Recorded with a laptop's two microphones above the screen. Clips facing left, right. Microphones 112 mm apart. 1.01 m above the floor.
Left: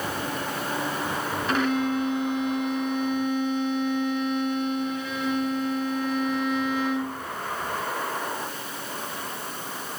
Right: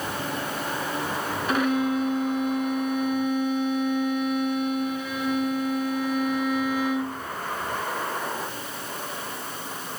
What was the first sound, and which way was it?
A violin, 5° right (ahead or behind).